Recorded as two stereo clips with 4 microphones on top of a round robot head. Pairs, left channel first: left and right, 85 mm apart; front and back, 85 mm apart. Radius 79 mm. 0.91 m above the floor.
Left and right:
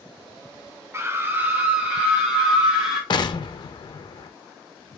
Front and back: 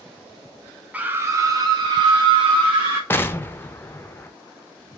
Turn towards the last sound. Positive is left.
turn(degrees=65)